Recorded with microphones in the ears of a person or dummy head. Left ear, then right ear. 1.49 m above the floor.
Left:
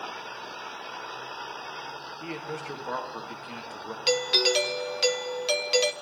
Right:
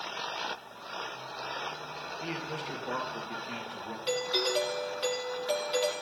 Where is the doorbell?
65° left (ahead or behind), 1.0 m.